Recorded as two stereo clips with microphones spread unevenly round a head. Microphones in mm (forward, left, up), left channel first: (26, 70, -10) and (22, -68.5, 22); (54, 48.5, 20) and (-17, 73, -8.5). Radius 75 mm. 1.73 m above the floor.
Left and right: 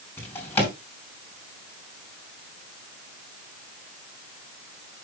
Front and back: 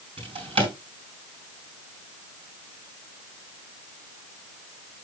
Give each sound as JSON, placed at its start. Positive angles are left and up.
{"t": 0.2, "sound": "a drawer", "azimuth_deg": 170, "distance_m": 4.5}